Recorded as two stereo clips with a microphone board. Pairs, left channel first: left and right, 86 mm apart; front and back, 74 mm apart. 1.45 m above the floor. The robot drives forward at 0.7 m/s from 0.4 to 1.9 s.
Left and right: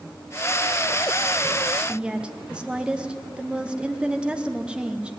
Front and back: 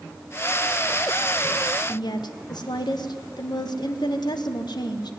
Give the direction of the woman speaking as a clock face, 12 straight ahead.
12 o'clock.